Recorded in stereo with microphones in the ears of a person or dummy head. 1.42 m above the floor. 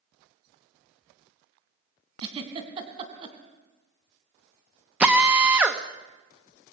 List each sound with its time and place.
2.2 s a giggle: 30° right (ahead or behind), 3 m
5.0 s a drill: 10° right (ahead or behind), 1.2 m